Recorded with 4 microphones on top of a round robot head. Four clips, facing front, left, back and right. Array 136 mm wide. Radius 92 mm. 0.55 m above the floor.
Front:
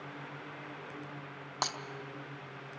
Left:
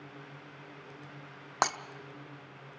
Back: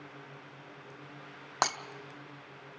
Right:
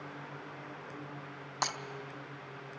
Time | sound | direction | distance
1.6 | breaking glass | 120° left | 0.9 m